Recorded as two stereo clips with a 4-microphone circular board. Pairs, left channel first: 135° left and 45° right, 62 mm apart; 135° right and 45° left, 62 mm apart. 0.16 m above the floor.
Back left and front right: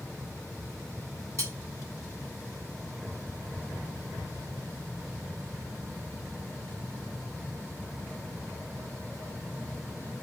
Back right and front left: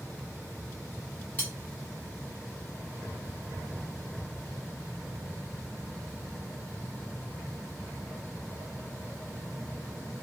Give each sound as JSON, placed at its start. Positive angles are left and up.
{"t": 1.4, "sound": "cutlery clinking", "azimuth_deg": -75, "distance_m": 1.6}